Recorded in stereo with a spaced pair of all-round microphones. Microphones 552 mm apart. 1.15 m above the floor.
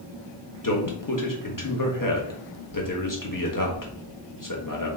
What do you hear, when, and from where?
0.6 s a man speaking: 35° left (ahead or behind), 1.1 m